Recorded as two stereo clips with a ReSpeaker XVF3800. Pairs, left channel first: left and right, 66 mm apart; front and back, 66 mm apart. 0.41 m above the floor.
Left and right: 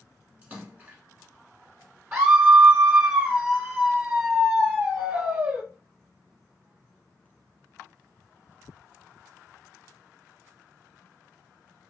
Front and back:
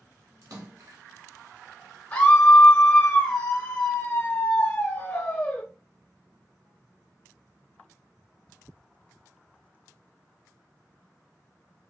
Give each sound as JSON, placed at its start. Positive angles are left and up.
{"t": 0.4, "sound": "a splash", "azimuth_deg": -155, "distance_m": 1.4}
{"t": 2.1, "sound": "a scream", "azimuth_deg": -45, "distance_m": 0.8}